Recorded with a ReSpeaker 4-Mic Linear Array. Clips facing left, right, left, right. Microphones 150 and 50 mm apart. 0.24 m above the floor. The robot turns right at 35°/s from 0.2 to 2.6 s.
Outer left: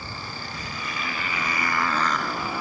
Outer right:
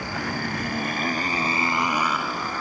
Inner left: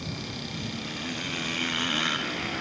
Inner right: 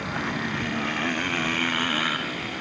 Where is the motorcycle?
75° right; by 2.6 s 10° left.